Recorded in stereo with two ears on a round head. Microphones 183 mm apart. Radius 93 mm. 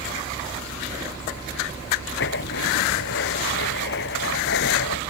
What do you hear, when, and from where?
2.2 s writing: 60° left (ahead or behind)